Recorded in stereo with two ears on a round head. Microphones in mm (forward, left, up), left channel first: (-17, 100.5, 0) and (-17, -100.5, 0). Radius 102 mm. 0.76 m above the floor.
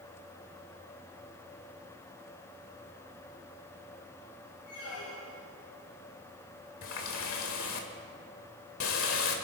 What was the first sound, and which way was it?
A squeak, 80° left.